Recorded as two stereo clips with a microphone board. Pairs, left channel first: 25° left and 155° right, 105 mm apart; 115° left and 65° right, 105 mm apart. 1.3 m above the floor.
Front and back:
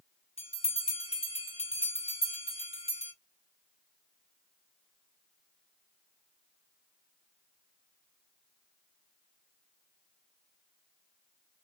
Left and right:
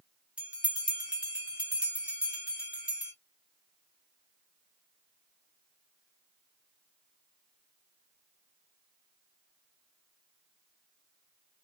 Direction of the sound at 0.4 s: 10° left.